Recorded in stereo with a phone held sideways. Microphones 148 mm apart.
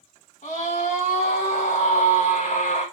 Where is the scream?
55° left (ahead or behind), 2 m.